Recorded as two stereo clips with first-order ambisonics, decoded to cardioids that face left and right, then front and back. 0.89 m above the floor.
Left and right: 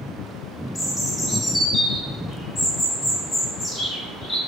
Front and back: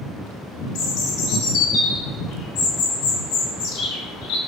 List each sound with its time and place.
0.8 s a bird: 15° left, 0.6 m